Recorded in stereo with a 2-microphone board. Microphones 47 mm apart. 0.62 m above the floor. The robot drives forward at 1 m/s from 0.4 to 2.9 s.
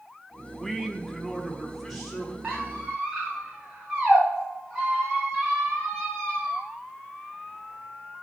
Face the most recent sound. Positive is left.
turn(degrees=-20)  # may be behind; listen again after turning